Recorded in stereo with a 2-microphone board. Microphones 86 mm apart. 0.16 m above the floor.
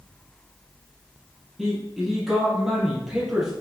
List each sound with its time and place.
1.6 s a man speaking: 5° right (ahead or behind), 5 m